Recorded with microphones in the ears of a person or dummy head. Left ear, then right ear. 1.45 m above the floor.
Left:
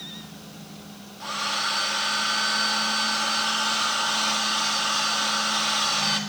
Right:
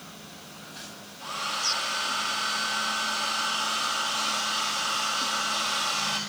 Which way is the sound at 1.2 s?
15° left (ahead or behind).